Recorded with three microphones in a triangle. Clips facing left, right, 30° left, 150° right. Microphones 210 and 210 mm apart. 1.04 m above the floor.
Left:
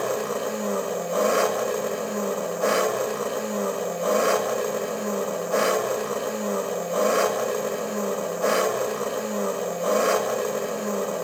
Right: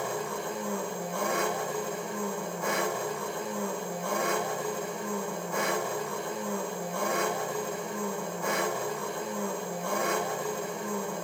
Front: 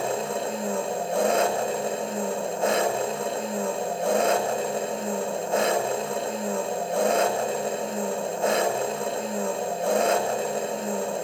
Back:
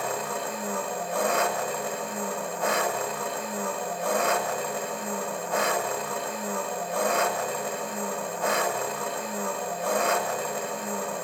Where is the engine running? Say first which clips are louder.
Left 8 dB, front 4 dB; 90° left, 1.3 m.